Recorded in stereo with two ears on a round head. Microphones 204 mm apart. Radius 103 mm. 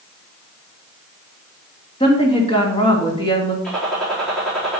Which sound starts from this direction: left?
A woman speaking, at 2.0 s.